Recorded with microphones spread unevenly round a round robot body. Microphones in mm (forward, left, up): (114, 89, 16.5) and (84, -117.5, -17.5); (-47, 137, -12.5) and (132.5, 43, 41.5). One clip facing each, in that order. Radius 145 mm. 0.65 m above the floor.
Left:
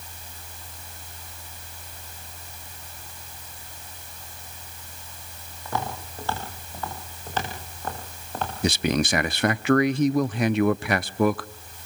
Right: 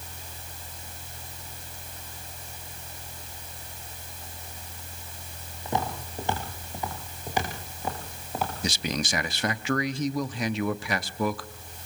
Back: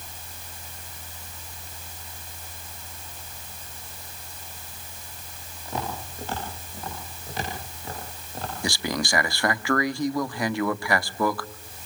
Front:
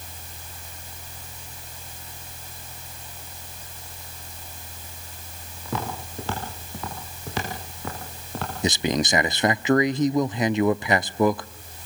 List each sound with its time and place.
5.7 s footsteps: 25° right, 9.5 m; by 8.5 s 15° right, 7.5 m
8.6 s a man speaking: 50° left, 0.8 m